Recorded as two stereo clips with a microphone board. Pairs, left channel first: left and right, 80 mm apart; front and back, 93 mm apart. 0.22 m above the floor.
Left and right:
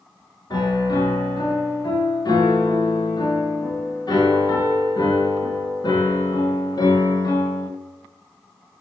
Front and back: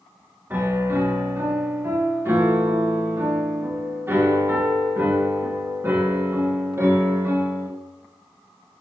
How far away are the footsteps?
I don't hear footsteps.